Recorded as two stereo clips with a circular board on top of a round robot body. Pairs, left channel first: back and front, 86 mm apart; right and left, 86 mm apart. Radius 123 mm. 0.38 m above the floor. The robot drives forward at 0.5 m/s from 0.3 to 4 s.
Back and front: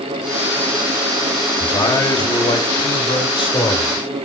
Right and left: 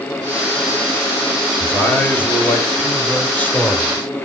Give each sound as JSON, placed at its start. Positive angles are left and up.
{"t": 1.6, "sound": "a man speaking", "azimuth_deg": -155, "distance_m": 2.5}